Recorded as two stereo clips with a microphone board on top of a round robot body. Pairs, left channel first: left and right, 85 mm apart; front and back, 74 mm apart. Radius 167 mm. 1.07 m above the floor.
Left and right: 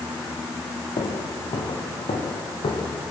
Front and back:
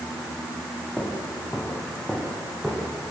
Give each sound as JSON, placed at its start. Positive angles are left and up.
{"t": 1.0, "sound": "footsteps", "azimuth_deg": 75, "distance_m": 2.5}